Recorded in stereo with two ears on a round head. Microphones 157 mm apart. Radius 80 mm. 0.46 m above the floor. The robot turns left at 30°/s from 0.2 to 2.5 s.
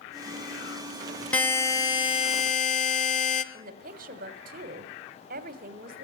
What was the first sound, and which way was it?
A buzzer, 170° left.